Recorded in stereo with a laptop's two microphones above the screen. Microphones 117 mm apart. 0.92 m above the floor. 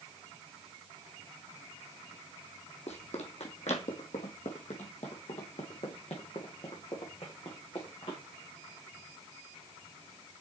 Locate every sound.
2.9 s running footsteps: 70° left (ahead or behind), 2.5 m; by 8.2 s 50° left (ahead or behind), 4 m